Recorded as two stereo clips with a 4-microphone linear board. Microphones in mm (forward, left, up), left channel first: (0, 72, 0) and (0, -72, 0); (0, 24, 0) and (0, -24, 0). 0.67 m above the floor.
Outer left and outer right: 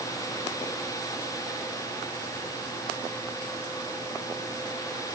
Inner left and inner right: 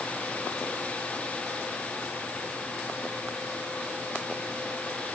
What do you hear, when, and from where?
Only background noise.